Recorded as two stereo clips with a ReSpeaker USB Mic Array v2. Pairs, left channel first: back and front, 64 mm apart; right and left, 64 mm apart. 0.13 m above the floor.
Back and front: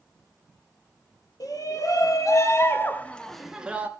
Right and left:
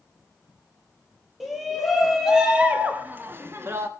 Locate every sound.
1.4 s a shout: straight behind, 3 m; by 3.9 s 55° left, 1.7 m